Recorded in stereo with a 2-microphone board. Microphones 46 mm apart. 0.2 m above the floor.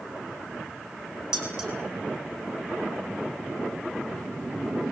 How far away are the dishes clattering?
About 6 m.